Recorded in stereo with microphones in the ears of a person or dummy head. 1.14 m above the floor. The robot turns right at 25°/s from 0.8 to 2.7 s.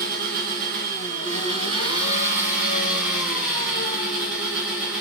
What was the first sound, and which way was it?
An engine running, 55° right.